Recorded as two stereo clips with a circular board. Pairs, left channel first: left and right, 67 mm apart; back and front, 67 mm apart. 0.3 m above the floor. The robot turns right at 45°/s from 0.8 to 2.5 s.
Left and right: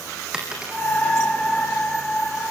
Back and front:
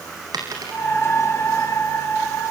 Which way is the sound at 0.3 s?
10° right.